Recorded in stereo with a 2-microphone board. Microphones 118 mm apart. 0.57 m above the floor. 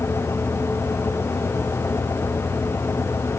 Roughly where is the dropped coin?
I don't hear a dropped coin.